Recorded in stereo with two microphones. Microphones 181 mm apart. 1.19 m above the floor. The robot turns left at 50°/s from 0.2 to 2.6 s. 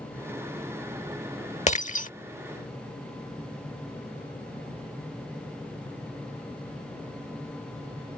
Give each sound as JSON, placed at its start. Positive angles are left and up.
{"t": 1.7, "sound": "breaking glass", "side_deg": 40}